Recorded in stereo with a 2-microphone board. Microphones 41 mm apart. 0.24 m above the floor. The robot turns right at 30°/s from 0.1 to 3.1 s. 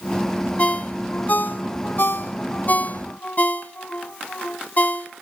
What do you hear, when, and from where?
0.6 s a ringtone: 35° left (ahead or behind), 0.8 m; by 5.1 s 45° left (ahead or behind), 0.8 m